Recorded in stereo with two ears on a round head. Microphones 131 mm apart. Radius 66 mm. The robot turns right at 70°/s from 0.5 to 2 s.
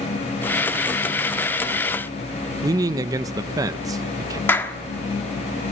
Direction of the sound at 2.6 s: 25° right (ahead or behind).